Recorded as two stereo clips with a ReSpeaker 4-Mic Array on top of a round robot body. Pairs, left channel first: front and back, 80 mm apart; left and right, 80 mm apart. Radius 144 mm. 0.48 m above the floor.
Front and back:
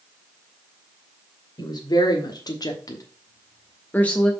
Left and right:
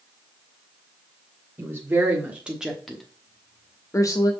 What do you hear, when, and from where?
1.6 s a woman speaking: 30° right, 1.9 m; by 4.3 s 75° left, 1.3 m